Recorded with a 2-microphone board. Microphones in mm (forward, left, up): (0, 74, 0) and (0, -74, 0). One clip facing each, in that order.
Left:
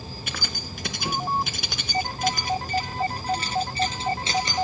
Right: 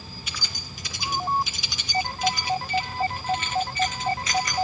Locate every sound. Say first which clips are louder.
0.3 s keys jangling: left 5 dB; 65° left (ahead or behind), 2.5 m; by 4.6 s 25° left (ahead or behind), 3 m